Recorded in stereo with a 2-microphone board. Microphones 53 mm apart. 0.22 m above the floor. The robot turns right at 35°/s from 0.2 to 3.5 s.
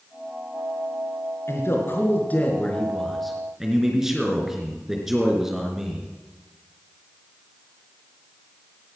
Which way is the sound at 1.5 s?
115° left.